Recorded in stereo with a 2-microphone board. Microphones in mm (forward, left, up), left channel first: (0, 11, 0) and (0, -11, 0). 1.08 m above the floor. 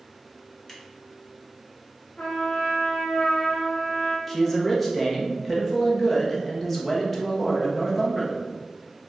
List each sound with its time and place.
0.7 s scissors: 20° left (ahead or behind), 1.6 m
2.2 s a trumpet: 75° left (ahead or behind), 1.3 m
4.3 s a man speaking: 5° left (ahead or behind), 1.1 m